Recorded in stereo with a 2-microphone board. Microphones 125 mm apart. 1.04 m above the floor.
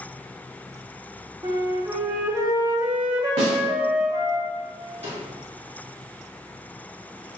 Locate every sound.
1.4 s a flute: 25° right (ahead or behind), 0.6 m
3.4 s a snare drum: 55° right (ahead or behind), 1.5 m
5.0 s a snare drum: 65° right (ahead or behind), 2.0 m